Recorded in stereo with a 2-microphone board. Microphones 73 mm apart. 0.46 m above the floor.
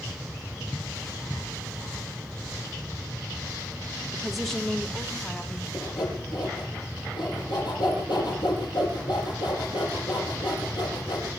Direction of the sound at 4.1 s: 10° right (ahead or behind).